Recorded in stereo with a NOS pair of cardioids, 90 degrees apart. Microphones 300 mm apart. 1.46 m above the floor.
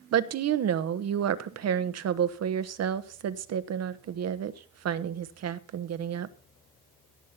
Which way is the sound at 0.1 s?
55° right.